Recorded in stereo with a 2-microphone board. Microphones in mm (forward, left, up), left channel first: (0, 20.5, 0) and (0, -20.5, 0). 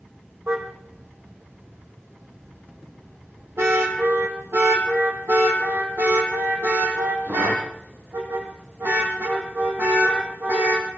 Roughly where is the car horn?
Right.